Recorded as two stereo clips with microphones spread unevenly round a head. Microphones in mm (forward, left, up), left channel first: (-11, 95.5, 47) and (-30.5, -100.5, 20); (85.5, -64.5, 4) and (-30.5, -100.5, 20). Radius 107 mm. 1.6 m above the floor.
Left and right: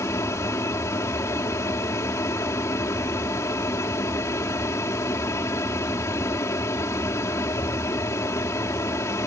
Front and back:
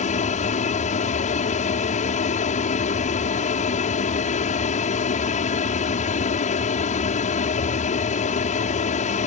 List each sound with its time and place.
0.0 s an aircraft: 10° left